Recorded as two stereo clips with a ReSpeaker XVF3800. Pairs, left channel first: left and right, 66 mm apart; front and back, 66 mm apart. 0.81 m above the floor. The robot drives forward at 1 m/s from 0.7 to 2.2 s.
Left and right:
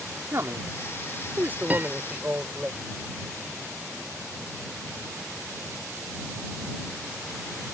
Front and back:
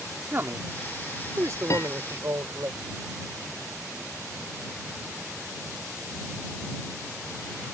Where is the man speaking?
130° right; by 2.7 s 155° right.